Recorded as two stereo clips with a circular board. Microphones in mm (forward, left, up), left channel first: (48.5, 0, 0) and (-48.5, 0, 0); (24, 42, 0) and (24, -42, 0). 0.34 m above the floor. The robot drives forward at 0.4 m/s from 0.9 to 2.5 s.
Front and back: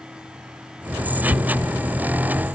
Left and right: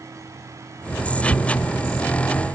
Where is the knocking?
80° right, 1.8 m; by 1.7 s 85° right, 1.7 m.